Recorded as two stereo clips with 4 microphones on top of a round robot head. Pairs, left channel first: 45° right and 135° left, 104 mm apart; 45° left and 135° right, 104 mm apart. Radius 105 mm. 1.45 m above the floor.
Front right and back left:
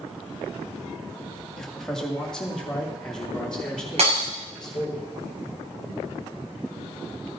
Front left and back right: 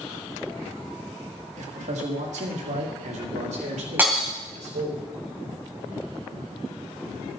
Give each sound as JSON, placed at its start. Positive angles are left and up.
{"t": 1.6, "sound": "a man speaking", "azimuth_deg": -135, "distance_m": 1.9}
{"t": 4.0, "sound": "breaking glass", "azimuth_deg": 155, "distance_m": 4.5}